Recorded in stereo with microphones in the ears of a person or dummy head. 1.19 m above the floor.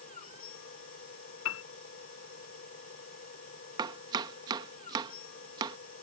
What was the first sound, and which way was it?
A machine running, 45° left (ahead or behind).